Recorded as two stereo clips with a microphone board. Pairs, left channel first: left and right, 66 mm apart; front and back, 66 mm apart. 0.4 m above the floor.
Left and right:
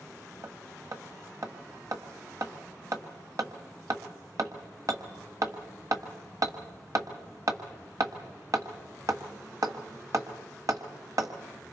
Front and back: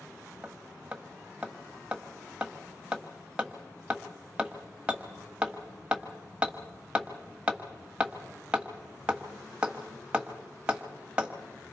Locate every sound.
0.4 s hammering: 110° right, 1.5 m